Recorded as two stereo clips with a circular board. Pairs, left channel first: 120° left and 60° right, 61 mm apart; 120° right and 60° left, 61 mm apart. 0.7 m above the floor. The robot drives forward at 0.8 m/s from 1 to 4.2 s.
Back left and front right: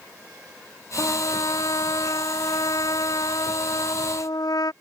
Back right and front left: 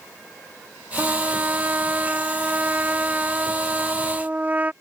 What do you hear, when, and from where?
1.0 s a trumpet: 115° left; by 4.7 s 125° left